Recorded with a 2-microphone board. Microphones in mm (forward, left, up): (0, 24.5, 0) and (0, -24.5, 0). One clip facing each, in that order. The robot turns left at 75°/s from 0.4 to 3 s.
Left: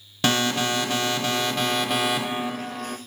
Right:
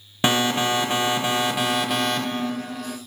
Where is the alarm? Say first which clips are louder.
Right 2 dB; 20° right (ahead or behind), 0.9 m; by 3.0 s 25° left (ahead or behind), 0.9 m.